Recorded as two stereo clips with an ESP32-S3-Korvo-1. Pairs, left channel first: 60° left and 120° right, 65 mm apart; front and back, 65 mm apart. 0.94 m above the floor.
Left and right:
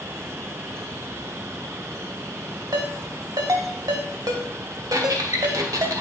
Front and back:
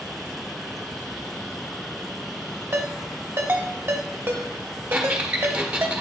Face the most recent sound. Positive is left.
turn(degrees=-110)